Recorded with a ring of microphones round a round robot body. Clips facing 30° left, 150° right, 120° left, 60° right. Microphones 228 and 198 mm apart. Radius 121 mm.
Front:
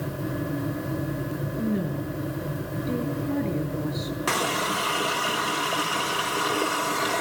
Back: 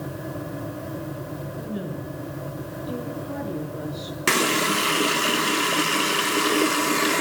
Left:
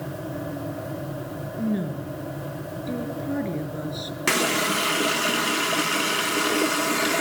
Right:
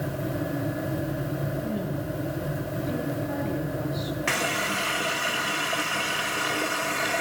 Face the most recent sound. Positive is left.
turn(degrees=160)